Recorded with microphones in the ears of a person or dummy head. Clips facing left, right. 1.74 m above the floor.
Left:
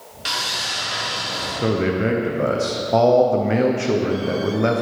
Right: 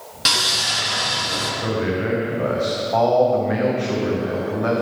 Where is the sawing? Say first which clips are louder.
Right 3 dB; 70° right (ahead or behind), 2 m.